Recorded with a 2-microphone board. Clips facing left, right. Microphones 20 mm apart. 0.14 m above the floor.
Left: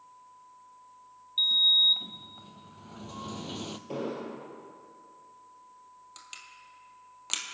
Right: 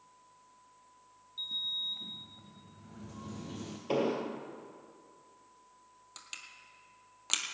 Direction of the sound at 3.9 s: 55° right (ahead or behind).